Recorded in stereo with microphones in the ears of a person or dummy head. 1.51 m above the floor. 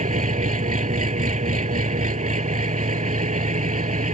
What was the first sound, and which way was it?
An engine running, 35° right (ahead or behind).